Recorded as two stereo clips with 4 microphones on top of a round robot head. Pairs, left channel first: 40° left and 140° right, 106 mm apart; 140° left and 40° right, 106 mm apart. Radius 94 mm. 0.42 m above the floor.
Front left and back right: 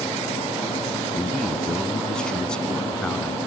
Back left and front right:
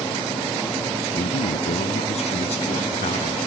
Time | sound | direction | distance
1.1 | a man speaking | 120° left | ?